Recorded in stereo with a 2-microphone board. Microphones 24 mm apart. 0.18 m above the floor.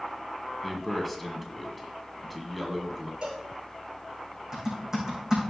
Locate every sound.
0.6 s a man speaking: 5° left (ahead or behind), 1.7 m
3.2 s a cowbell: 40° right (ahead or behind), 4.5 m
4.5 s typing on a keyboard: 25° right (ahead or behind), 5 m